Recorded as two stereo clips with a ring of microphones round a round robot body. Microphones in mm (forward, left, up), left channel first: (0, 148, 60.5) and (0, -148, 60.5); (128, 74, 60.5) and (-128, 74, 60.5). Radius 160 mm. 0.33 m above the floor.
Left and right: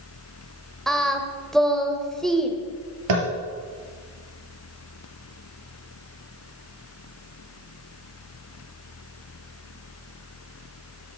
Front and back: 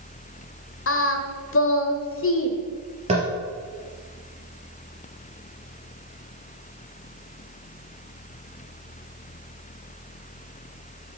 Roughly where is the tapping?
Right.